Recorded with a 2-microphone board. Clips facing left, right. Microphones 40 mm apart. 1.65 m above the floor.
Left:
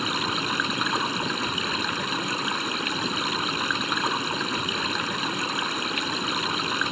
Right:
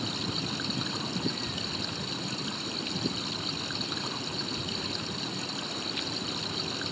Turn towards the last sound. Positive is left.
turn(degrees=45)  # may be behind; listen again after turning